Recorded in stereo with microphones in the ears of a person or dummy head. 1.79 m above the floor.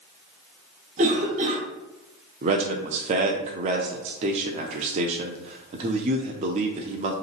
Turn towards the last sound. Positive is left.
turn(degrees=-40)  # may be behind; listen again after turning